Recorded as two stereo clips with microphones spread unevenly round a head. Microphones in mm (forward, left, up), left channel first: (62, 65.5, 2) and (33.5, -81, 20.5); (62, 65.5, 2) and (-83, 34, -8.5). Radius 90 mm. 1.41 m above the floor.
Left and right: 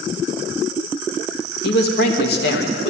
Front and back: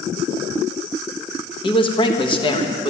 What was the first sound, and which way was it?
A man speaking, 70° left.